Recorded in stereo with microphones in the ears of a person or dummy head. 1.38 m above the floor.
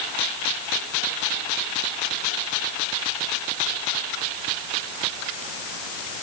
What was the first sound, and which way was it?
Only background noise.